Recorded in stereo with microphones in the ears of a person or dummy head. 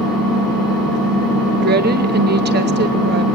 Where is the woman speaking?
50° right (ahead or behind), 0.9 m.